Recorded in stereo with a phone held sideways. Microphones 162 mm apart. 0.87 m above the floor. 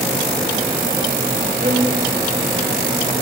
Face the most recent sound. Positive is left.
turn(degrees=-65)  # may be behind; listen again after turning